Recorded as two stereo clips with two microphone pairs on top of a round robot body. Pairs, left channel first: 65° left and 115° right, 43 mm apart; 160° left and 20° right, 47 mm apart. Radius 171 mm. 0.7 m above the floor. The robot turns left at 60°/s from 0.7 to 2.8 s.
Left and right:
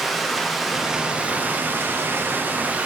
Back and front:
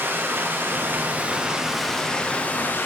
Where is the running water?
35° right, 1.2 m; by 2.9 s 160° right, 1.2 m.